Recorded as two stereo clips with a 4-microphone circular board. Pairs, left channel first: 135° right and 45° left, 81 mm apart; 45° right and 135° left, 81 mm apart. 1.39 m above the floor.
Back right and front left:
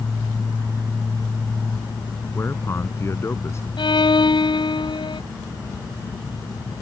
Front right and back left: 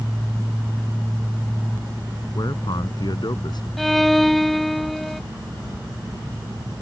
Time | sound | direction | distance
2.4 | a man speaking | 80° right | ?
3.8 | a violin | 135° right | ?